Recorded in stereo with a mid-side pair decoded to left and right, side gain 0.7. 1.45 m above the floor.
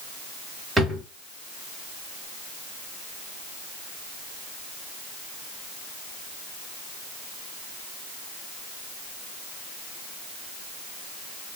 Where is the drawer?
5° right, 1.6 m.